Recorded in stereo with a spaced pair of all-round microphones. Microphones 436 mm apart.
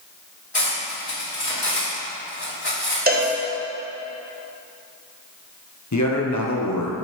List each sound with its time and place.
0.5 s cutlery clinking: 65° left (ahead or behind), 2 m
3.1 s a cowbell: 20° right (ahead or behind), 1.2 m
5.9 s a man speaking: 40° left (ahead or behind), 1.1 m